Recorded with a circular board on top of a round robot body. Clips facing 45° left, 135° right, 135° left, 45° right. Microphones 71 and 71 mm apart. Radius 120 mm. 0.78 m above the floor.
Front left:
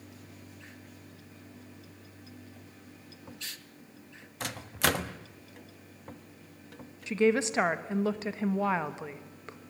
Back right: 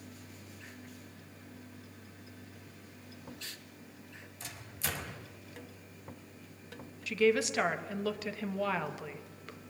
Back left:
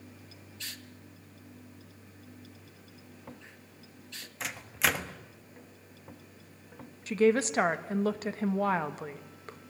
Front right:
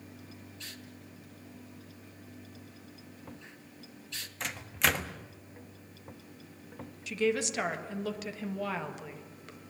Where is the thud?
I don't hear a thud.